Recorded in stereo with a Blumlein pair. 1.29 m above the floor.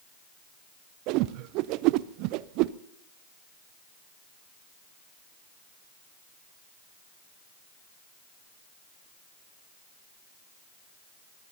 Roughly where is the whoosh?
Ahead right.